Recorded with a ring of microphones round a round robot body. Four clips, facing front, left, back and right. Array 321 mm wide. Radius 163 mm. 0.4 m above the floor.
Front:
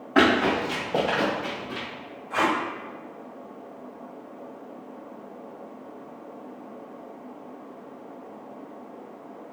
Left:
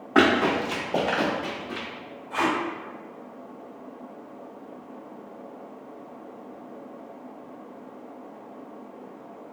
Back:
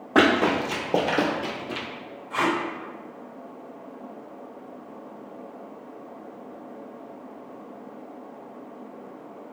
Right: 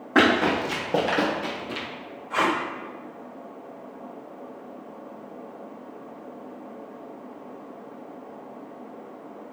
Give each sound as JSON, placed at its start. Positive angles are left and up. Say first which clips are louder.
{"t": 0.1, "sound": "running footsteps", "louder": "even, back 1 dB", "azimuth_deg": -155, "distance_m": 1.5}
{"t": 2.3, "sound": "tape being pulled", "louder": "right 1 dB, front 1 dB", "azimuth_deg": -85, "distance_m": 1.7}